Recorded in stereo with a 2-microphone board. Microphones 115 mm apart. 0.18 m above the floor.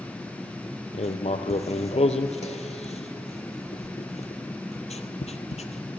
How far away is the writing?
About 0.8 m.